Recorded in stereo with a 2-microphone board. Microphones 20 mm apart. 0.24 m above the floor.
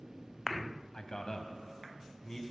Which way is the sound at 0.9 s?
35° left (ahead or behind).